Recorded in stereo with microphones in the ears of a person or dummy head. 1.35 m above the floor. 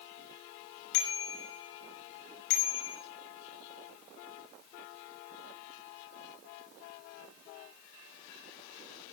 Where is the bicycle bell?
70° left (ahead or behind), 6 m.